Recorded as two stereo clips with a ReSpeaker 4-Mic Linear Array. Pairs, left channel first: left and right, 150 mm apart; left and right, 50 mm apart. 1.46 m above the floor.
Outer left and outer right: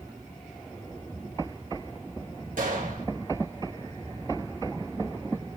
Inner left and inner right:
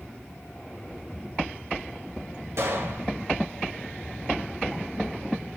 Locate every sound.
2.6 s a gunshot: 65° right (ahead or behind), 1.8 m